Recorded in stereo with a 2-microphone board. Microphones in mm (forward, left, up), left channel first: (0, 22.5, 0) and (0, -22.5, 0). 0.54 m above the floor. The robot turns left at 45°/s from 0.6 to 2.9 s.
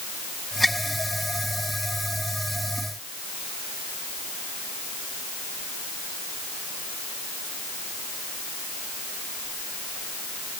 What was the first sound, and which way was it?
Only background noise.